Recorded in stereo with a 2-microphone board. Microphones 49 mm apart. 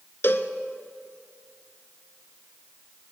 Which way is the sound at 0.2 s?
50° left (ahead or behind).